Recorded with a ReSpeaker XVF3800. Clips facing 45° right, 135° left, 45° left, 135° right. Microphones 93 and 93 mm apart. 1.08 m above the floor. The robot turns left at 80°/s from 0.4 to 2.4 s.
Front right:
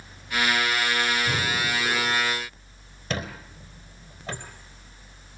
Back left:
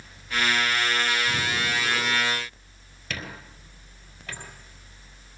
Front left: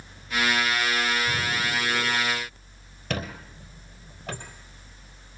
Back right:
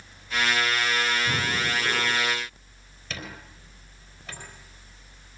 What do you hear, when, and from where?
1.2 s breathing: 90° right, 6 m; by 2.2 s 165° right, 6 m
3.1 s a squeak: 15° left, 3.5 m